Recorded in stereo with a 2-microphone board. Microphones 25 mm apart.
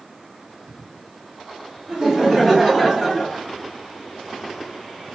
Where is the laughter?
25° right (ahead or behind), 1.6 m; by 3.4 s 10° left (ahead or behind), 1.4 m.